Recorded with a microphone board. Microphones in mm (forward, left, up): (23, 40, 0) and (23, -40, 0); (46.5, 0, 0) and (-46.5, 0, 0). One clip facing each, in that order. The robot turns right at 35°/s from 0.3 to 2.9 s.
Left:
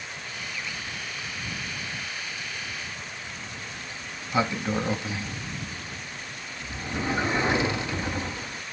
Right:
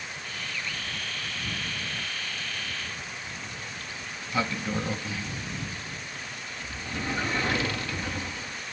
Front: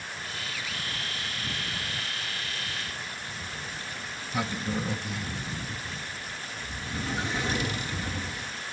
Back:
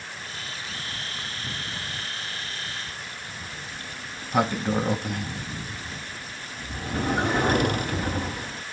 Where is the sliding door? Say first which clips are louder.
Even, even; 155° left.